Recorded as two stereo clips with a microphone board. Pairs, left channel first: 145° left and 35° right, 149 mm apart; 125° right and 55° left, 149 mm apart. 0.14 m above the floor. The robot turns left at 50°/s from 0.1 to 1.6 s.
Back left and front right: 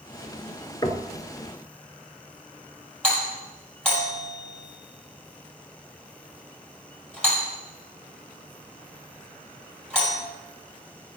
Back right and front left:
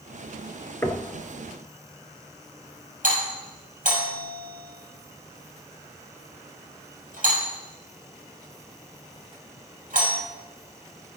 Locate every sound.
0.8 s knocking: 175° left, 0.9 m; by 1.1 s 160° left, 0.9 m
3.0 s a doorbell: 60° left, 4.5 m